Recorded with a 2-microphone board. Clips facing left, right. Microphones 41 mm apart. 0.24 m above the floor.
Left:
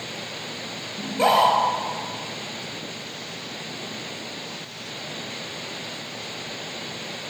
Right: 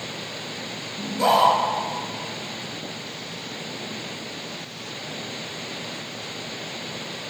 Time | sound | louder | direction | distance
1.0 | a scream | even | 40° left (ahead or behind) | 3.5 m